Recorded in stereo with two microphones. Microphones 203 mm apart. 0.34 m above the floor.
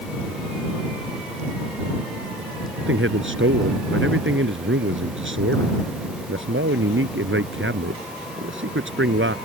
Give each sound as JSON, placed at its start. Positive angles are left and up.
{"t": 2.8, "sound": "a man speaking", "side_deg": -75}